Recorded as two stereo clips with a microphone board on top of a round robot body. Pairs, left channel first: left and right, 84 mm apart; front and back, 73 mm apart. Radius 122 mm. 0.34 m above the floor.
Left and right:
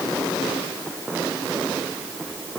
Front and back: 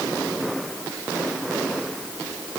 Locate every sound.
Only background noise.